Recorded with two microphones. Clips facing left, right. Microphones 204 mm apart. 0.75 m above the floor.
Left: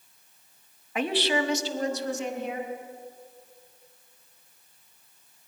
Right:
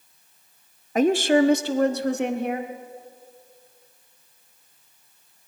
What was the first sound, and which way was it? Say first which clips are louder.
A woman speaking: right 9 dB; 40° right (ahead or behind).